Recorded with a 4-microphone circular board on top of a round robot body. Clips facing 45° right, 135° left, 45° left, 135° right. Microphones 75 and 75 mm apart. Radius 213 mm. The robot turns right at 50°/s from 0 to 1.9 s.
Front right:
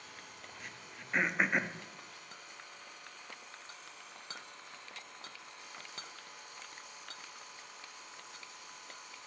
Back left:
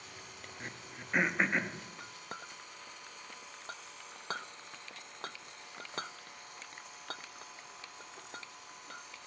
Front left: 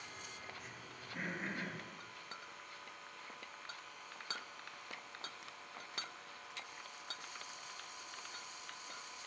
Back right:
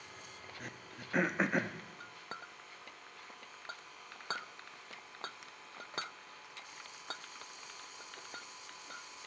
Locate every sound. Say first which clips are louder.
0.6 s throat clearing: back left 6 dB, back right 3 dB; 170° right, 1.2 m; by 1.8 s 115° right, 1.2 m
2.0 s a clink: back left 6 dB, back right 4 dB; 170° left, 0.8 m